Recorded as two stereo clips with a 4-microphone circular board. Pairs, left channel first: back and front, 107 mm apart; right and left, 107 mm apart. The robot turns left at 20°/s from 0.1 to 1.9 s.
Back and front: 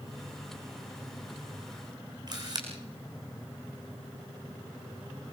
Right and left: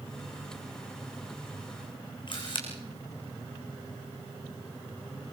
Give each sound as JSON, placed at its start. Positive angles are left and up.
{"t": 2.3, "sound": "a camera shutter", "azimuth_deg": -50, "distance_m": 4.5}